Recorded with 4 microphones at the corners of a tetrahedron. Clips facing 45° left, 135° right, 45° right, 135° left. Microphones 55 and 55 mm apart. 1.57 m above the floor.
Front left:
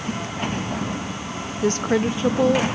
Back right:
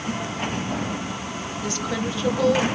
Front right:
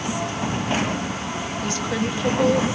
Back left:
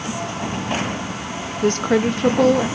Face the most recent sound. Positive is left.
turn(degrees=110)